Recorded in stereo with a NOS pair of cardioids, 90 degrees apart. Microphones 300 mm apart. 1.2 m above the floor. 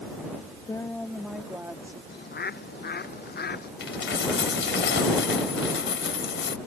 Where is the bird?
35° left.